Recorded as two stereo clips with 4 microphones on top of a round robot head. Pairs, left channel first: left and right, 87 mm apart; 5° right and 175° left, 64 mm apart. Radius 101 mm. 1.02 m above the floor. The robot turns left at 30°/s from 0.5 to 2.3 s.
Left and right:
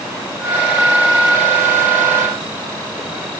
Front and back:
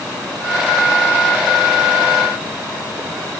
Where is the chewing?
No chewing in this recording.